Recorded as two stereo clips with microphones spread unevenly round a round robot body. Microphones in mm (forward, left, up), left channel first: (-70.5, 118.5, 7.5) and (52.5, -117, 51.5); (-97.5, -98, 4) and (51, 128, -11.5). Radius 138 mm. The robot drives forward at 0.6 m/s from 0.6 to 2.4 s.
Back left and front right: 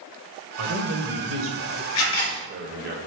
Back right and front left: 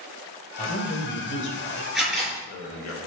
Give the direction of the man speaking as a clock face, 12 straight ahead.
2 o'clock.